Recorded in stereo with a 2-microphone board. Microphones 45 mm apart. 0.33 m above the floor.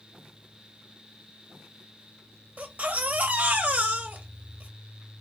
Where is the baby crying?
35° right (ahead or behind), 0.8 m.